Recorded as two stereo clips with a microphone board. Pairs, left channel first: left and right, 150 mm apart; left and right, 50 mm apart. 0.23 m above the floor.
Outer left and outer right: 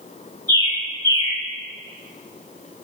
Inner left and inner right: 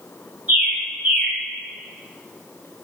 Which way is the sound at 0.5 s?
25° right (ahead or behind).